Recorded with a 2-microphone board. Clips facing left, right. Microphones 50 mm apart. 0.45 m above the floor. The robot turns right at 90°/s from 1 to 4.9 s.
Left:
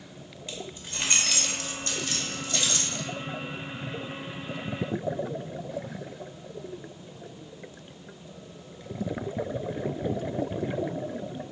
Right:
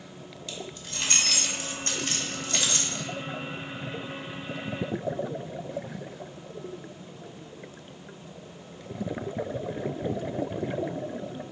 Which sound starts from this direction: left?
Keys jangling, at 0.5 s.